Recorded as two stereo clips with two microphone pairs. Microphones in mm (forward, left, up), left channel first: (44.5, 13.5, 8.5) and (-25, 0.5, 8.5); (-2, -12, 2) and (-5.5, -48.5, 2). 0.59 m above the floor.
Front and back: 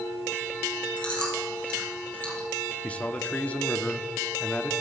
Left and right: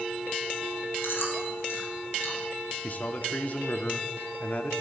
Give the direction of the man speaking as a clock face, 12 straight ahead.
10 o'clock.